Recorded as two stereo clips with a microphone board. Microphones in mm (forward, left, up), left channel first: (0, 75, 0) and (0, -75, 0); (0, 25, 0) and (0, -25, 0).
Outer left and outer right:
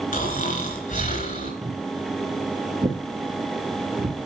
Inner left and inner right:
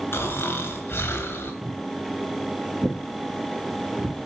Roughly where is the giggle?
I don't hear a giggle.